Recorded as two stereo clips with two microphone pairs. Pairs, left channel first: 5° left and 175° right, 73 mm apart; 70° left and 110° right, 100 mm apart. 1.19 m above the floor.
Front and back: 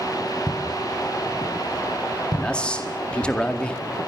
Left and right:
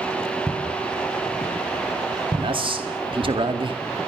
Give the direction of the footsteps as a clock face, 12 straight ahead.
1 o'clock.